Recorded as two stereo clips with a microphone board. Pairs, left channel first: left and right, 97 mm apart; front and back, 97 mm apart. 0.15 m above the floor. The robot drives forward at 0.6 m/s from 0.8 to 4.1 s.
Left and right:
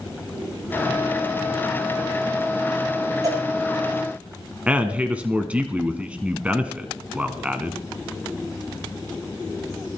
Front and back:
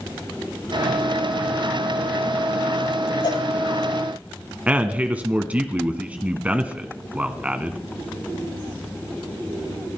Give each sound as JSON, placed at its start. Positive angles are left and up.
{"t": 3.2, "sound": "a cowbell", "azimuth_deg": -40, "distance_m": 10.0}
{"t": 4.7, "sound": "a man speaking", "azimuth_deg": -135, "distance_m": 1.1}